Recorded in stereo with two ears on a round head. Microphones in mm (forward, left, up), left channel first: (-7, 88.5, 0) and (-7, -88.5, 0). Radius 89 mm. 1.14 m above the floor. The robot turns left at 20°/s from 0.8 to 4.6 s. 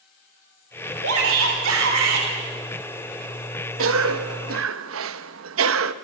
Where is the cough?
75° right (ahead or behind), 1.2 m; by 5.9 s 80° right, 1.2 m.